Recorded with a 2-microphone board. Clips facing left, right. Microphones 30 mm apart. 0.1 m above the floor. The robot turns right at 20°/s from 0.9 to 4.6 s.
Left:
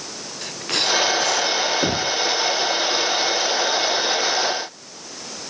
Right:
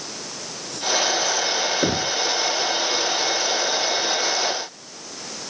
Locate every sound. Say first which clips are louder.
0.4 s a hiss: left 7 dB; 75° left (ahead or behind); by 1.7 s 85° left
1.8 s knocking: left 1 dB; 10° right (ahead or behind); by 2.2 s 15° right (ahead or behind)